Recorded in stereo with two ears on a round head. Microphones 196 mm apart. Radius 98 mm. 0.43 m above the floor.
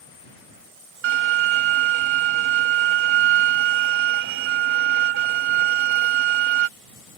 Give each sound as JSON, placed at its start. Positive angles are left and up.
{"t": 1.0, "sound": "a violin", "side_deg": -60}